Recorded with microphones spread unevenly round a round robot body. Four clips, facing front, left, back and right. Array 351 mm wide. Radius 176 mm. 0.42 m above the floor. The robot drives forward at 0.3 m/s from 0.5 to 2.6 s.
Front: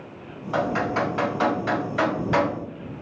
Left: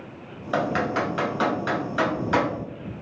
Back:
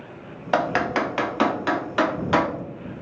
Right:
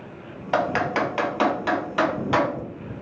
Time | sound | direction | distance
0.5 | typing on a keyboard | 170° left | 0.6 m